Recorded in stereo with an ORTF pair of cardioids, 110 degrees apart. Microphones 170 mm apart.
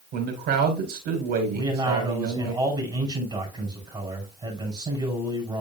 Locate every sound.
0.1 s a man speaking: 65° right, 4 m
1.5 s a man speaking: 25° right, 5 m